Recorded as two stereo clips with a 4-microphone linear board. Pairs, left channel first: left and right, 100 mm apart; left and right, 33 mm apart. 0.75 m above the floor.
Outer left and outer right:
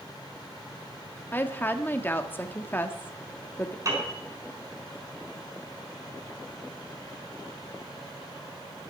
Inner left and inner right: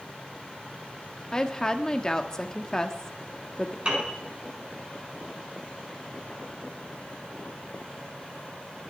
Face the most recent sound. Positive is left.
turn(degrees=-35)  # may be behind; listen again after turning